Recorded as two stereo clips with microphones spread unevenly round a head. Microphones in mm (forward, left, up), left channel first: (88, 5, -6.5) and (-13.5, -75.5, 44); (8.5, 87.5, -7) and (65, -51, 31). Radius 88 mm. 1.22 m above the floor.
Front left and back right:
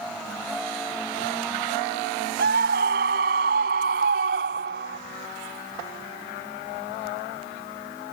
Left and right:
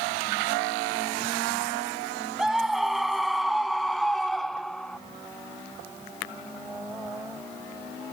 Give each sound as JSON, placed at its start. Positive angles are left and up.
{"t": 2.4, "sound": "a scream", "azimuth_deg": -155}